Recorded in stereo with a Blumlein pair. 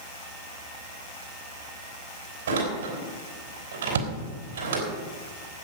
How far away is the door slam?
About 4 m.